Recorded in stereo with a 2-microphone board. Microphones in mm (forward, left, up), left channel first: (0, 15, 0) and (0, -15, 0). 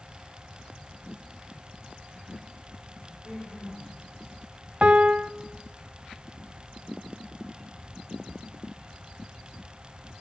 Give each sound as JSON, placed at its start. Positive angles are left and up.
{"t": 3.1, "sound": "a woman speaking", "side_deg": 0, "distance_m": 4.0}
{"t": 4.8, "sound": "a piano", "side_deg": -45, "distance_m": 0.7}